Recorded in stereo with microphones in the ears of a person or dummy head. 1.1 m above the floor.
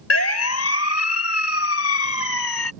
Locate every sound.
0.1 s a siren: 85° left